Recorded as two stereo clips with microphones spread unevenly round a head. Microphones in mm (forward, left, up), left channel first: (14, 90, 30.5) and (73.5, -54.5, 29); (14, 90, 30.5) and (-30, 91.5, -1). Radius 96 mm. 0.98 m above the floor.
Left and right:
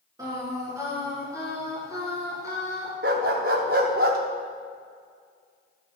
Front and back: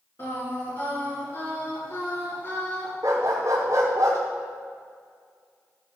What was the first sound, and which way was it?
Singing, straight ahead.